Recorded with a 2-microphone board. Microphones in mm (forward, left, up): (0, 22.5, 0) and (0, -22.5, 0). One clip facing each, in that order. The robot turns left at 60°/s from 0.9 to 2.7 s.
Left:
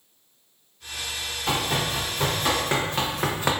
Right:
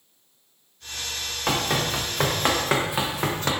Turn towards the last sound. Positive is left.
turn(degrees=20)  # may be behind; listen again after turning